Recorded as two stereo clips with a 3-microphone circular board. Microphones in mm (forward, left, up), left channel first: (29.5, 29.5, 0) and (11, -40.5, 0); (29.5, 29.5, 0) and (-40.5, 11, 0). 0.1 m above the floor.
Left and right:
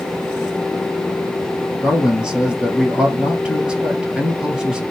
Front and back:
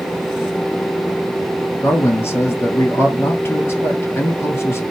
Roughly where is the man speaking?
Ahead right.